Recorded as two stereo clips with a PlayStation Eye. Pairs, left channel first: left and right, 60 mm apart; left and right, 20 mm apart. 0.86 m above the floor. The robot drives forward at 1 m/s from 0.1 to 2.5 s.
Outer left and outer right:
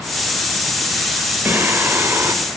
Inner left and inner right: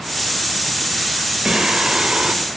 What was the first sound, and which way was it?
Singing, 40° right (ahead or behind).